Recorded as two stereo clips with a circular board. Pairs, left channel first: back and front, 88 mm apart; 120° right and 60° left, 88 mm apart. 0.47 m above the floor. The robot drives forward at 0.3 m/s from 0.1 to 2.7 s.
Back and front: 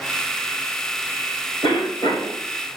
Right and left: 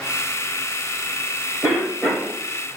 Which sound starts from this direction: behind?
A cough, at 1.6 s.